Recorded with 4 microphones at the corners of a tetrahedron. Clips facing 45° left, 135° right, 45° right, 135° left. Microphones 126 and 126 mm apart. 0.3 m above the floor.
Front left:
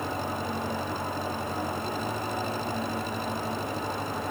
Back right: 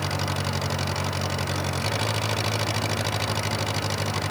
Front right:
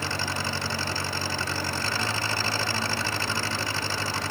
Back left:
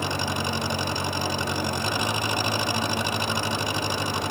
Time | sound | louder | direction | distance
0.0 | an engine running | back right 2 dB, back left 3 dB | 150° right | ?